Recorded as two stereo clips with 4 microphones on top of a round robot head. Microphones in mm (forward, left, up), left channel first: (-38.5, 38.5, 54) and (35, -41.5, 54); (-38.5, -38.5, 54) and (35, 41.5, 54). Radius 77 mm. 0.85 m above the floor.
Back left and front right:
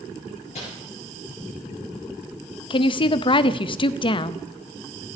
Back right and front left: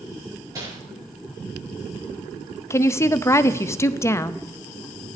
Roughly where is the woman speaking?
Behind.